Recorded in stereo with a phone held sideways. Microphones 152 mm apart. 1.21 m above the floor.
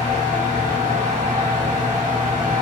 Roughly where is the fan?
Right.